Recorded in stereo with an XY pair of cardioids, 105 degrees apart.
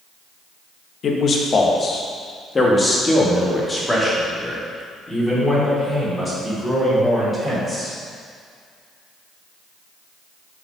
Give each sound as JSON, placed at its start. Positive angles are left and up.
{"t": 1.0, "sound": "a man speaking", "azimuth_deg": 55, "distance_m": 1.5}